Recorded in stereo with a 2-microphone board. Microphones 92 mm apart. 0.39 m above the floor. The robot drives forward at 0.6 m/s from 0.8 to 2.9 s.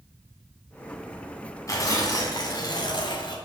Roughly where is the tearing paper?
Left.